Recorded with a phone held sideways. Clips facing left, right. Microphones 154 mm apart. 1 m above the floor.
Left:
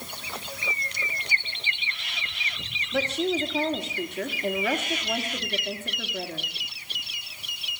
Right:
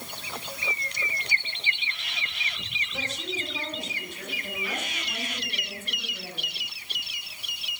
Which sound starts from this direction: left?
A woman speaking, at 2.9 s.